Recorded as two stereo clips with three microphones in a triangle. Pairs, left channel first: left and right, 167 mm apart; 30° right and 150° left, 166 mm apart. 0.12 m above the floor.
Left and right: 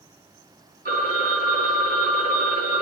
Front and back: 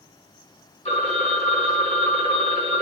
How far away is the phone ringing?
About 3 m.